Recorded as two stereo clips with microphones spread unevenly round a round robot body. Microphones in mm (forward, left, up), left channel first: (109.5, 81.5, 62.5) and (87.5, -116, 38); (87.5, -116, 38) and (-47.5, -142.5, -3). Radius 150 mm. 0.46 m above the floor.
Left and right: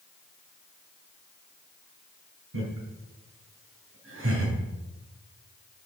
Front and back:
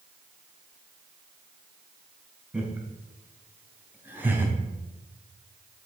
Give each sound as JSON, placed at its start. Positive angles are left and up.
{"t": 2.5, "sound": "laughter", "azimuth_deg": -90, "distance_m": 4.5}